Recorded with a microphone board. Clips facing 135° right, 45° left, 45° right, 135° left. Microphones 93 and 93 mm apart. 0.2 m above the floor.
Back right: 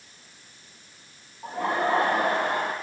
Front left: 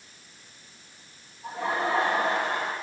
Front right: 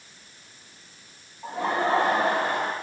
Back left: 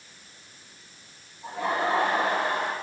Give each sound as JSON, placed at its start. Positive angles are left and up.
{"t": 1.4, "sound": "laughter", "azimuth_deg": -95, "distance_m": 6.5}